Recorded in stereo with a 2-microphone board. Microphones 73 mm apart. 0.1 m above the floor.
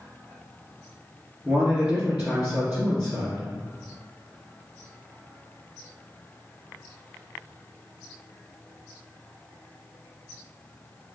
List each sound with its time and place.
1.4 s a man speaking: 15° right (ahead or behind), 1.6 m